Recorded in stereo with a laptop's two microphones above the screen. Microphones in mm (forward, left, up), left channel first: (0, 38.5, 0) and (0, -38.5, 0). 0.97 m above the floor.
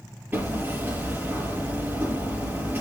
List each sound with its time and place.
0.3 s hammering: 25° right (ahead or behind), 5.5 m